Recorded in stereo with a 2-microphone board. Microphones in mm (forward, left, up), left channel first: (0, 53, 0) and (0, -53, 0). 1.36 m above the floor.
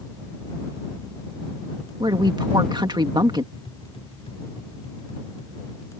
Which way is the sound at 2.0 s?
45° right (ahead or behind).